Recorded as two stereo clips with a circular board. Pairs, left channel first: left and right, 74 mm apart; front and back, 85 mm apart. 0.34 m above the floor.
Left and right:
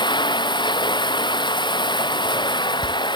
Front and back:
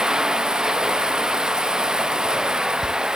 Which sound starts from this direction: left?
Running water, at 0.0 s.